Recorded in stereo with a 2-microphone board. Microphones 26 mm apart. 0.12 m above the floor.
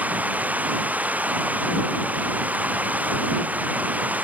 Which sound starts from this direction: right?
Running water, at 0.0 s.